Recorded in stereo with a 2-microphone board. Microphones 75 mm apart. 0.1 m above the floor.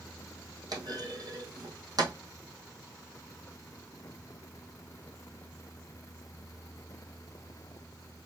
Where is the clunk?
60° right (ahead or behind), 1.4 m.